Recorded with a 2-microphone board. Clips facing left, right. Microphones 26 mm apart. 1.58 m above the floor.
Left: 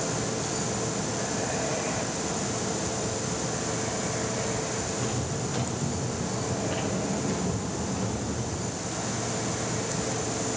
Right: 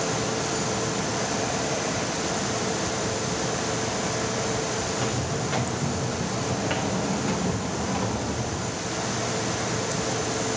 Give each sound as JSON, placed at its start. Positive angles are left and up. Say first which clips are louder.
{"t": 4.9, "sound": "footsteps", "louder": "right 3 dB", "side_deg": -75, "distance_m": 6.0}